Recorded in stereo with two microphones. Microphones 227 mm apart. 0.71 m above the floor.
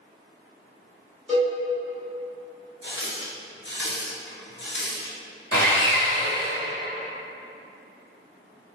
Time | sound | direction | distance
1.3 | a cowbell | 5° left (ahead or behind) | 1.8 m
2.8 | a running tap | 55° left (ahead or behind) | 0.6 m
5.5 | sawing | 15° left (ahead or behind) | 1.3 m